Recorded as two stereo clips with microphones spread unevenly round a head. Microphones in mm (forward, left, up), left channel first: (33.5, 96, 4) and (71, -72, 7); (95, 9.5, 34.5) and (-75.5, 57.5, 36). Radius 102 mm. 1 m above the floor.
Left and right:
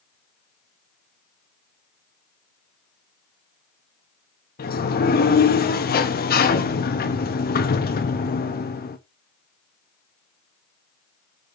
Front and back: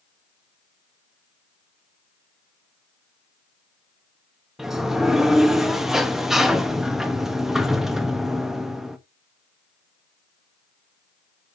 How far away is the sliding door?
About 1.5 m.